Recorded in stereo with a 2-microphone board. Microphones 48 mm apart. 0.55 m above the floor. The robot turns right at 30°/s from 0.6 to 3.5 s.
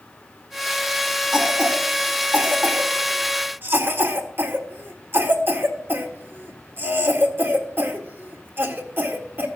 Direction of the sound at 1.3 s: 10° right (ahead or behind).